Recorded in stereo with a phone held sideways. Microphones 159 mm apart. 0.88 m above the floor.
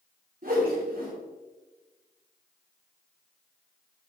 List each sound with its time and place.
0.4 s a whoosh: 65° right (ahead or behind), 3 m